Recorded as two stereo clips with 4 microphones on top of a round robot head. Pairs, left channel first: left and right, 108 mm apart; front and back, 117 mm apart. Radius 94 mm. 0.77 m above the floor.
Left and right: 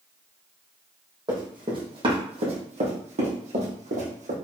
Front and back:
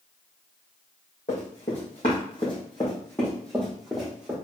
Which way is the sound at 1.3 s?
40° right.